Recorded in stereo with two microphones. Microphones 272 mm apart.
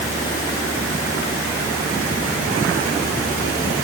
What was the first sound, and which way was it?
Only background noise.